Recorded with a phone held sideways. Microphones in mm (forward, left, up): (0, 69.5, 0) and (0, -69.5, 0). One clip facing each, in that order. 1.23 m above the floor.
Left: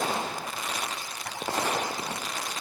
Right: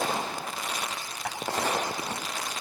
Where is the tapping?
85° right, 9.5 m.